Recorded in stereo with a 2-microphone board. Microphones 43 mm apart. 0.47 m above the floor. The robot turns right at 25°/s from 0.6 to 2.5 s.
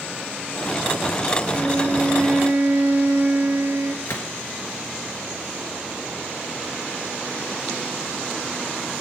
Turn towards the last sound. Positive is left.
turn(degrees=75)  # may be behind; listen again after turning